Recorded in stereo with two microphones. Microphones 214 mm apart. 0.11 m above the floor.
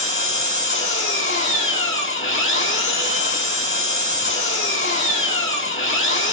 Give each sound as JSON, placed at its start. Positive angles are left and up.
{"t": 0.0, "sound": "an engine running", "side_deg": 70, "distance_m": 1.3}